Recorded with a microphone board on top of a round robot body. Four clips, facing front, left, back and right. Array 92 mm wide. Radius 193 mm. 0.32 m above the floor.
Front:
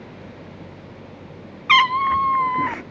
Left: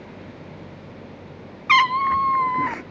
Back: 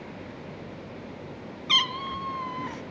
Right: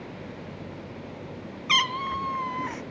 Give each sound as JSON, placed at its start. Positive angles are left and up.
{"t": 1.7, "sound": "a cat meowing", "azimuth_deg": 40, "distance_m": 0.5}